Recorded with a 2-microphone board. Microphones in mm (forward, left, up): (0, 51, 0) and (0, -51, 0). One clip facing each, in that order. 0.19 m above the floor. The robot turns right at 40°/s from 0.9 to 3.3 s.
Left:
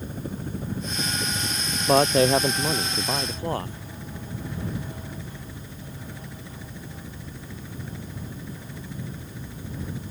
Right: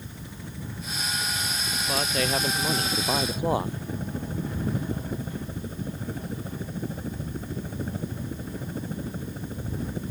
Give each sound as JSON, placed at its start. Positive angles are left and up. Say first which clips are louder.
{"t": 0.0, "sound": "a helicopter", "louder": "left 8 dB", "azimuth_deg": 130}
{"t": 1.9, "sound": "a man speaking", "louder": "left 10 dB", "azimuth_deg": 135}